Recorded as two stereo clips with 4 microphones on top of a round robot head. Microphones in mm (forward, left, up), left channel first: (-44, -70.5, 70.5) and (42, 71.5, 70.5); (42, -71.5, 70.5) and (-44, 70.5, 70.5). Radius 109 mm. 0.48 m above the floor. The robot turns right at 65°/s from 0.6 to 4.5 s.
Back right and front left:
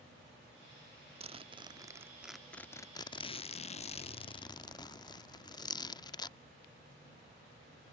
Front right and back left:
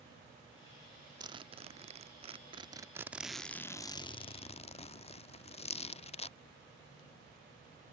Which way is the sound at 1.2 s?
75° left.